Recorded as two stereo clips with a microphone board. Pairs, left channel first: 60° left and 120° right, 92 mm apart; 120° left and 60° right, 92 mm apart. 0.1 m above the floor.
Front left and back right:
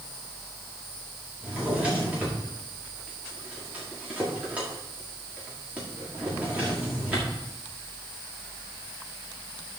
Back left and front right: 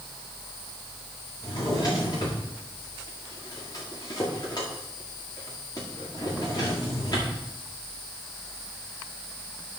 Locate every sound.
1.4 s a drawer: 165° left, 5.5 m